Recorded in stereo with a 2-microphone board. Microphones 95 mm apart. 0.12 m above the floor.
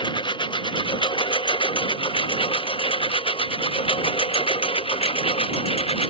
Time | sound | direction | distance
0.0 | a lawn mower | 55° left (ahead or behind) | ?